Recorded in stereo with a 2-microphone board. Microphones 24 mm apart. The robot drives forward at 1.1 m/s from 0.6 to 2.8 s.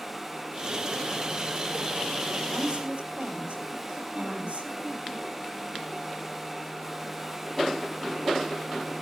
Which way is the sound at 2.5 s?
85° right.